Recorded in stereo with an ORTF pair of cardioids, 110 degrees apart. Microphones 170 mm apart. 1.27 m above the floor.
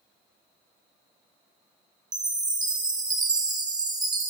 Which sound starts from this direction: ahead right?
A chime, at 2.1 s.